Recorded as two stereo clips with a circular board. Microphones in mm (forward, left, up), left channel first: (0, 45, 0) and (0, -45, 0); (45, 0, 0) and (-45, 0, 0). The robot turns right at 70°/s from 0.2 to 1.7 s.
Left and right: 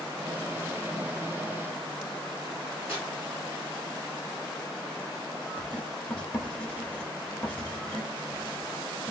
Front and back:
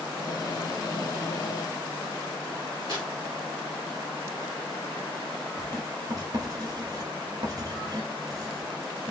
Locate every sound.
2.9 s tearing paper: 25° right, 1.6 m
5.6 s writing: 160° left, 0.8 m